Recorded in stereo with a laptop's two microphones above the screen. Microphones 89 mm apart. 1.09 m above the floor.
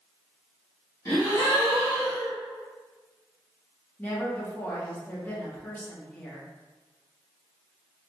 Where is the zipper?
No zipper in this recording.